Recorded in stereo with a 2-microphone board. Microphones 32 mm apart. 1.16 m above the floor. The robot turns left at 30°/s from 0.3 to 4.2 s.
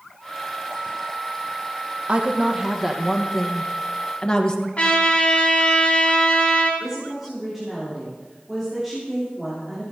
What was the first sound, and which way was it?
A woman speaking, 145° right.